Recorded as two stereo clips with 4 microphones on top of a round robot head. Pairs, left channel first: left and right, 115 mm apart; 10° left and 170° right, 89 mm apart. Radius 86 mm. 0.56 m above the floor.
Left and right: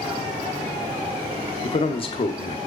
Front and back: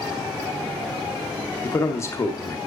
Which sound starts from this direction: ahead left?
A man speaking, at 1.6 s.